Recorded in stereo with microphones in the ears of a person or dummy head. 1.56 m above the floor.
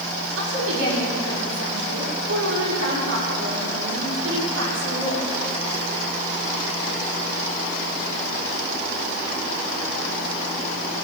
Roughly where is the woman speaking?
Right.